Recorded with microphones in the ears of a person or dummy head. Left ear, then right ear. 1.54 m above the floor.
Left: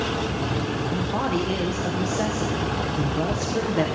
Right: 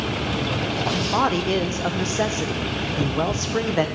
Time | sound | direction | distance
0.9 | a man speaking | 40° right (ahead or behind) | 1.1 m